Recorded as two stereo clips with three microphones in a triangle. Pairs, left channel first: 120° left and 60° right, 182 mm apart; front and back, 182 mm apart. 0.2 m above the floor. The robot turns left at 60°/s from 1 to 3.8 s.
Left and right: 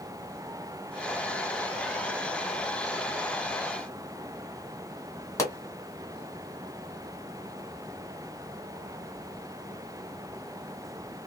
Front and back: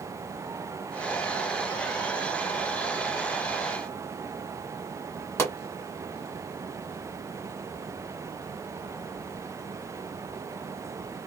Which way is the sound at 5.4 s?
65° left.